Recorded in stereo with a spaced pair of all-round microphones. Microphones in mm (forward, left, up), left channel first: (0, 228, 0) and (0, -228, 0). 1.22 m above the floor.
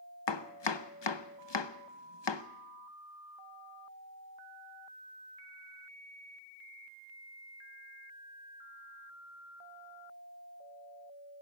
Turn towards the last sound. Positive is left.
turn(degrees=70)  # may be behind; listen again after turning